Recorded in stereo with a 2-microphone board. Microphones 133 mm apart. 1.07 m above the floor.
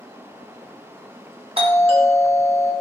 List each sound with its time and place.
1.6 s a doorbell: 45° right (ahead or behind), 1.4 m